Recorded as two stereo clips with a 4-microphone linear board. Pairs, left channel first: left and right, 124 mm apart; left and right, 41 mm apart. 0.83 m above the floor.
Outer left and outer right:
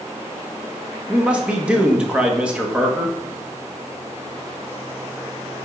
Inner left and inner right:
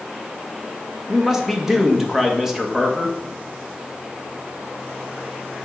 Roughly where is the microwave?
No microwave in this recording.